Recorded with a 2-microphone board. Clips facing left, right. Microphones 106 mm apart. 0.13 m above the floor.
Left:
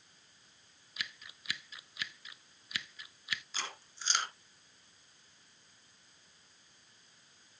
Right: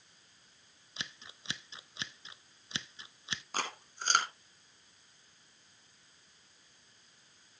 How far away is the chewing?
About 2.5 m.